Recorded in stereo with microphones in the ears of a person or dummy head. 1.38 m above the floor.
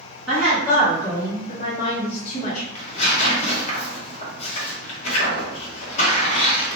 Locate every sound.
0.3 s a woman speaking: 10° left (ahead or behind), 1.9 m; by 2.6 s 55° left (ahead or behind), 1.1 m
2.8 s tearing paper: 45° left (ahead or behind), 0.9 m